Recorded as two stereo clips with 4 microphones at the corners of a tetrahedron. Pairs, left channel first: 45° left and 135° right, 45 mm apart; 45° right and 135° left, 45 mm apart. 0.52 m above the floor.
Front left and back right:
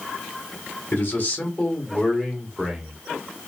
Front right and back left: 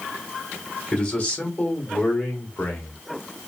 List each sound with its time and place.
0.9 s a man speaking: 10° left, 1.2 m; by 3.0 s 55° right, 1.3 m